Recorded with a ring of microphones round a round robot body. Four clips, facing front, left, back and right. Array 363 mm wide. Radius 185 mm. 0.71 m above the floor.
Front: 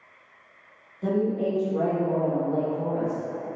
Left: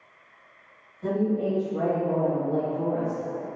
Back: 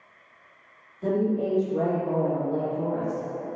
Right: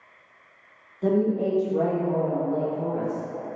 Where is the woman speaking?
95° right, 1.7 m; by 3.5 s 115° left, 2 m.